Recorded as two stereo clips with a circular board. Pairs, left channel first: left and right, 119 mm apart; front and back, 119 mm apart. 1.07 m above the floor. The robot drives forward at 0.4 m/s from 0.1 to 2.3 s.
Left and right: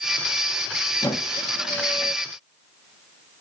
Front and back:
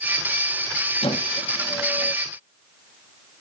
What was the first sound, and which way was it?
A squeak, 35° left.